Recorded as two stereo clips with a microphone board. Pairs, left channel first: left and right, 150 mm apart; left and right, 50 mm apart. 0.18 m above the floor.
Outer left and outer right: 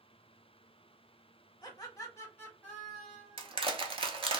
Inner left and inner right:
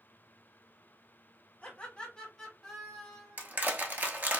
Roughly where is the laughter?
Left.